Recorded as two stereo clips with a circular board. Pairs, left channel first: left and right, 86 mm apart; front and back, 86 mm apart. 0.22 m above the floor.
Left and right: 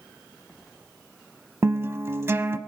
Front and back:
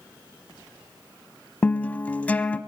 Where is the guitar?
60° right, 0.8 m.